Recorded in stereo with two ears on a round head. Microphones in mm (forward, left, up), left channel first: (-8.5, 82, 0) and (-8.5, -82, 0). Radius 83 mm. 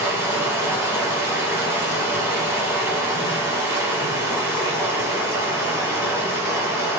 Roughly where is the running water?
Centre.